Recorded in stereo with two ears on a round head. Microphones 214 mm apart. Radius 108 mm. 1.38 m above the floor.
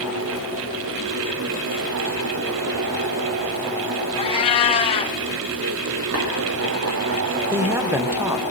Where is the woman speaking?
10° right (ahead or behind), 1.0 m.